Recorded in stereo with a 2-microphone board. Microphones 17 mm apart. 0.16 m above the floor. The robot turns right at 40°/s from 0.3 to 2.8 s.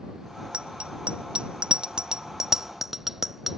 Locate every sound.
0.5 s a bicycle bell: 70° right (ahead or behind); by 3.6 s 15° right (ahead or behind)